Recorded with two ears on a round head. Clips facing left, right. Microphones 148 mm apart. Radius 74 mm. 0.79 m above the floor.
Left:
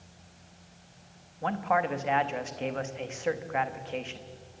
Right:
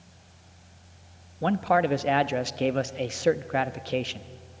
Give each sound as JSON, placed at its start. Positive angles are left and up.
{"t": 1.4, "sound": "a man speaking", "side_deg": -45, "distance_m": 0.8}